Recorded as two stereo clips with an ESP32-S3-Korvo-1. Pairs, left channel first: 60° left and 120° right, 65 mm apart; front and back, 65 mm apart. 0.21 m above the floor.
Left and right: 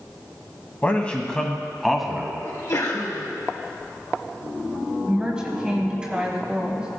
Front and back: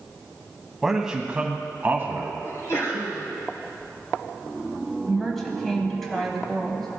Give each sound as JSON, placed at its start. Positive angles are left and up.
{"t": 0.8, "sound": "a man speaking", "azimuth_deg": 100, "distance_m": 1.1}
{"t": 2.4, "sound": "a sneeze", "azimuth_deg": 40, "distance_m": 3.0}
{"t": 5.1, "sound": "a woman speaking", "azimuth_deg": -75, "distance_m": 1.4}